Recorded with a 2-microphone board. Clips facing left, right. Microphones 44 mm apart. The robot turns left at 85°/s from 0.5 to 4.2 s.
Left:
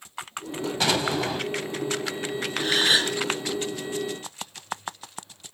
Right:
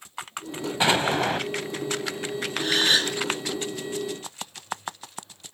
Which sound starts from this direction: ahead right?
An explosion, at 0.8 s.